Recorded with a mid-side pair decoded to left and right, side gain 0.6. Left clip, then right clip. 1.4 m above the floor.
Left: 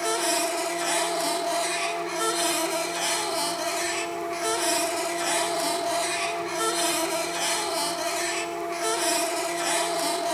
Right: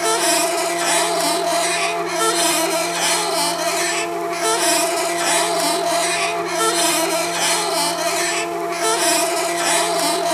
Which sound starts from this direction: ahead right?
A machine running, at 0.0 s.